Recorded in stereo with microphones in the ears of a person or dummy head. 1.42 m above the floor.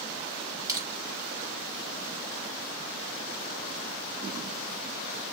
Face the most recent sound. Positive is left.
turn(degrees=-15)  # may be behind; listen again after turning